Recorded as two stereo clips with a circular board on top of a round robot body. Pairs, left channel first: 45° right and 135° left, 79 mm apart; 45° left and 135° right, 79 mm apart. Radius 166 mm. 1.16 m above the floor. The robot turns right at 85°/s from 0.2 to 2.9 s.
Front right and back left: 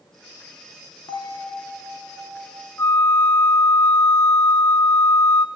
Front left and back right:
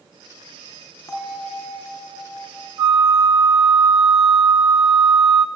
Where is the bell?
10° right, 3.5 m; by 2.7 s 130° left, 3.5 m.